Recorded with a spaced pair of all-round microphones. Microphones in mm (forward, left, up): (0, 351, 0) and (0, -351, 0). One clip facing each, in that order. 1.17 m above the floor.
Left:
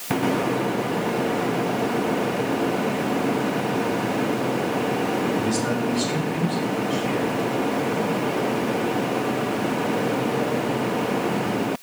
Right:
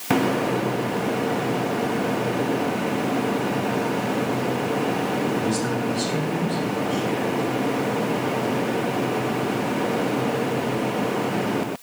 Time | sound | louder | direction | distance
5.4 | a man speaking | left 1 dB | 80° left | 2 m